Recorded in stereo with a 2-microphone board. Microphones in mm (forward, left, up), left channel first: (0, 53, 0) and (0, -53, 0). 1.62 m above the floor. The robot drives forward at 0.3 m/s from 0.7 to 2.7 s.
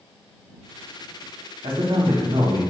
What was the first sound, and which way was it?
A man speaking, 60° right (ahead or behind).